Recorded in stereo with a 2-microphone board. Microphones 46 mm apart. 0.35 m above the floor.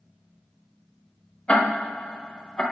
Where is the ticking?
25° left (ahead or behind), 0.8 m.